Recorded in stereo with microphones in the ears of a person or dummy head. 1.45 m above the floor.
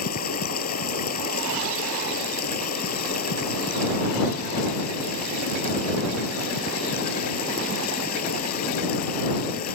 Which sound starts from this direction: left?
Running water, at 0.0 s.